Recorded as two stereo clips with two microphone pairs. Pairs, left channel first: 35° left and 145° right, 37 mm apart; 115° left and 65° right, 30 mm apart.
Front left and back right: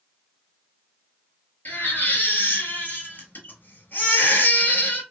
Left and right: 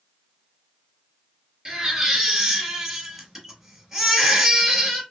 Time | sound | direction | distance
1.6 | a baby crying | 10° left | 1.4 m